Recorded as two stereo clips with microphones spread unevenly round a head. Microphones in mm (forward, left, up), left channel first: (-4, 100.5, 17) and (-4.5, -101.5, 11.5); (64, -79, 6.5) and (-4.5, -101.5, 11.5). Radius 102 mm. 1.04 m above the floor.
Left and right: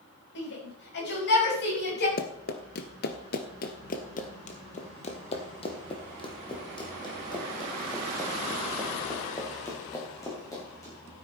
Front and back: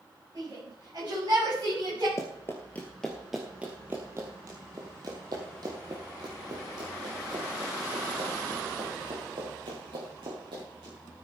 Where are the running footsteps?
70° left, 1.4 m; by 10.9 s 165° left, 6.5 m.